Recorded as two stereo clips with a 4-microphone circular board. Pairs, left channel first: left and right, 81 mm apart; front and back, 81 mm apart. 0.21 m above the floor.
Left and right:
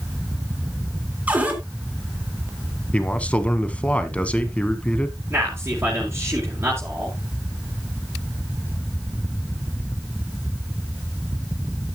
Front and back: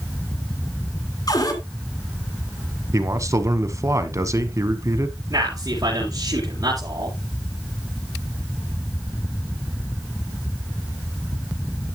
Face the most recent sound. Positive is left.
turn(degrees=-150)